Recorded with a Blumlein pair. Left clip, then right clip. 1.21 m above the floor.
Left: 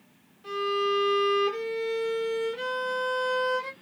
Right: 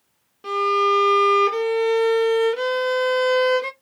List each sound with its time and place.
0.4 s a violin: 30° right, 1.1 m